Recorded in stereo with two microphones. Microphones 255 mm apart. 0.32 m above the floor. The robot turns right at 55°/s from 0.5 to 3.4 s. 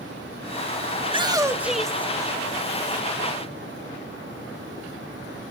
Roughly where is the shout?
Ahead right.